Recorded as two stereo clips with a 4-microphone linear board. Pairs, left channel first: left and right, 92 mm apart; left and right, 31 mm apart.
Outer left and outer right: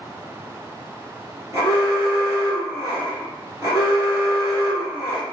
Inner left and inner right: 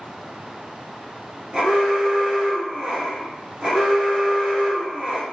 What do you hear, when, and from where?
1.5 s an alarm: 30° right (ahead or behind), 1.3 m